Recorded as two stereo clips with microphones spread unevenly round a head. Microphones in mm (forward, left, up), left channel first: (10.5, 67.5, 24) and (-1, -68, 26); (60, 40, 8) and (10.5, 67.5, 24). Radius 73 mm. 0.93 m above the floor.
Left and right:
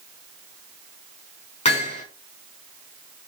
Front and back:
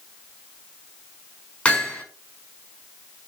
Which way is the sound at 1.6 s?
45° left.